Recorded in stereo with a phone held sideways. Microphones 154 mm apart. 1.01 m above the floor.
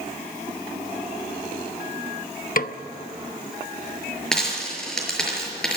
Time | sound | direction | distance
2.6 | a snare drum | 60° left (ahead or behind) | 0.8 m
4.3 | a dropped coin | 5° left (ahead or behind) | 6 m